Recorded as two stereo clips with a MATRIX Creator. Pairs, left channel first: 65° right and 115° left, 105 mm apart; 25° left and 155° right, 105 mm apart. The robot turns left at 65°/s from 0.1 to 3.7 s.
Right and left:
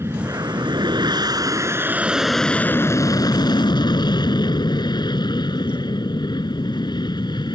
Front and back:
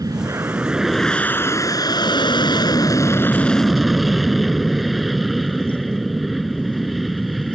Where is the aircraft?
165° left; by 7.5 s 65° right.